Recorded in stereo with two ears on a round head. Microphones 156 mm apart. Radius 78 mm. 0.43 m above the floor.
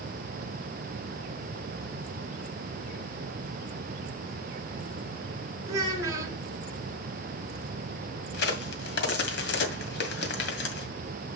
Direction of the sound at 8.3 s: 65° left (ahead or behind).